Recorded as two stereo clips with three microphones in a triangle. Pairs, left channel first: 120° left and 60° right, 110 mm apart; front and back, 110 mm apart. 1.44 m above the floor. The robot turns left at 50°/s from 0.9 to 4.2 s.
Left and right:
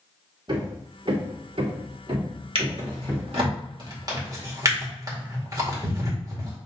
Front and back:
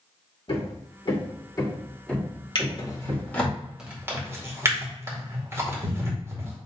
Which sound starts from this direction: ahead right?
A drawer, at 2.5 s.